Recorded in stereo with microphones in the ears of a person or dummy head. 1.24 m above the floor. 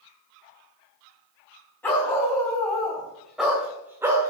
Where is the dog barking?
5° left (ahead or behind), 4 m; by 4.3 s 20° right (ahead or behind), 1.8 m.